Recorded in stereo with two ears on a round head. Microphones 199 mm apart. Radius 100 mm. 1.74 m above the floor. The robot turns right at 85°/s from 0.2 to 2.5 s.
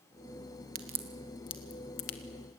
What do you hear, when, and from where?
0.8 s a crack: 40° right (ahead or behind), 1.7 m; by 2.2 s 75° left (ahead or behind), 1.7 m